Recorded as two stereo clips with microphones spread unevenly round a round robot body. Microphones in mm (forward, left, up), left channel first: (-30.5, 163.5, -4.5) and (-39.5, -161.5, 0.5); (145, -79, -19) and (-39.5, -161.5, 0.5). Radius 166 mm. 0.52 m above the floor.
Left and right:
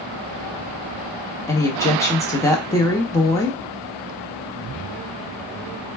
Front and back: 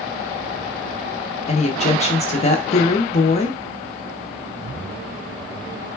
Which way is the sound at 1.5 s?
15° left.